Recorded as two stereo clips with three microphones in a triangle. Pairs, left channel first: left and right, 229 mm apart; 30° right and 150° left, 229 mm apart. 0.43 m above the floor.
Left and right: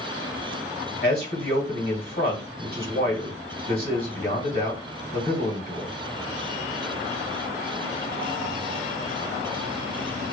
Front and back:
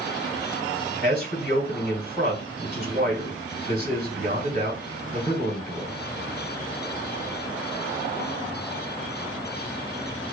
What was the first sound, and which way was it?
A man speaking, 120° left.